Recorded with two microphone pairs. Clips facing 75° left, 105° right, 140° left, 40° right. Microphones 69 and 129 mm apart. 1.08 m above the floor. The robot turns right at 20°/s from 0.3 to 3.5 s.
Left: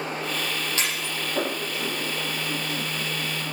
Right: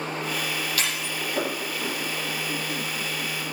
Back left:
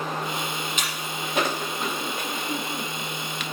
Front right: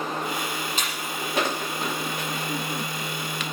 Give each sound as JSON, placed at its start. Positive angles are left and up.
{"t": 0.8, "sound": "breaking glass", "azimuth_deg": 15, "distance_m": 6.5}